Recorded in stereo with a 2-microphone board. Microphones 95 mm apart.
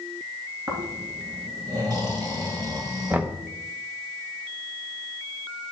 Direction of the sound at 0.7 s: 40° right (ahead or behind).